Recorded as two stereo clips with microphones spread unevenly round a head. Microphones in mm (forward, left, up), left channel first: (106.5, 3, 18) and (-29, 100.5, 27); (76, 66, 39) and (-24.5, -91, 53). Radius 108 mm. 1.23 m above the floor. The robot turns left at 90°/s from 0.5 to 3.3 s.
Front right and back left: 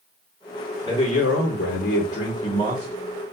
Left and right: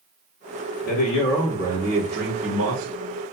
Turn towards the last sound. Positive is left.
turn(degrees=165)